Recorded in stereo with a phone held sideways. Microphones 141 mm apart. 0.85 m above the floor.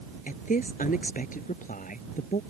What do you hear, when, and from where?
0.3 s a woman speaking: 85° left